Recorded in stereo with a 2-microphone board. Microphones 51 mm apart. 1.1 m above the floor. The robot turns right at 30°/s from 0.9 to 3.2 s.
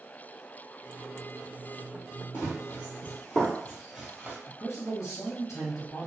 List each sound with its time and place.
2.3 s running footsteps: 45° left (ahead or behind), 1.5 m; by 4.4 s 30° right (ahead or behind), 1.2 m
4.5 s a man speaking: 75° left (ahead or behind), 1.0 m